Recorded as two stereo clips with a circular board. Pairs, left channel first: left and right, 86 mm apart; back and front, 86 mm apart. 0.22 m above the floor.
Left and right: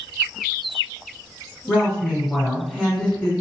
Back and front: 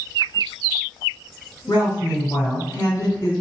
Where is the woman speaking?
160° left, 1.8 m.